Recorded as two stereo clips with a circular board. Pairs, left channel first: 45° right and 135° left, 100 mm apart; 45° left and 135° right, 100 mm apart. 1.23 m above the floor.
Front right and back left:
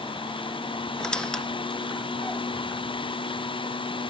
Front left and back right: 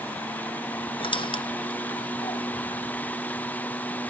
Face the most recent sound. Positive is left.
turn(degrees=35)